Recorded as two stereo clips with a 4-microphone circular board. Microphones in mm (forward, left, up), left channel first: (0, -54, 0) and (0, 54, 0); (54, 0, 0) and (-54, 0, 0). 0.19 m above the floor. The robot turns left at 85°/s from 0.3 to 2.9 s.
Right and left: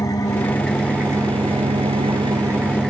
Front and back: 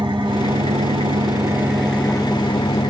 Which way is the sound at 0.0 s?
140° right.